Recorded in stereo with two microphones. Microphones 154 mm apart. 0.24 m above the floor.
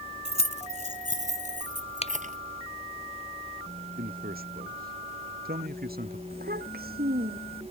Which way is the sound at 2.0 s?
40° left (ahead or behind).